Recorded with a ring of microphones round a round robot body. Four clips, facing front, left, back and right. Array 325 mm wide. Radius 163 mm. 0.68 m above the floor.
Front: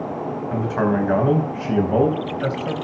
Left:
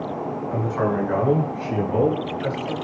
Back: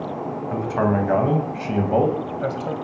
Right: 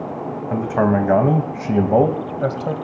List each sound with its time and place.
0.5 s a man speaking: 80° right, 5 m; by 2.8 s 70° right, 4 m